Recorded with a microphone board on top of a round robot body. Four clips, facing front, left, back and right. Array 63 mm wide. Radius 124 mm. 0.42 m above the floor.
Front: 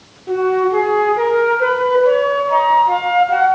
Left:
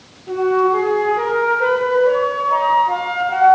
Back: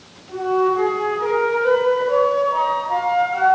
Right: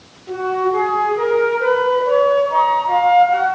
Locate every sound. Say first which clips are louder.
0.3 s a flute: left 3 dB, front 3 dB; 5° left, 8.5 m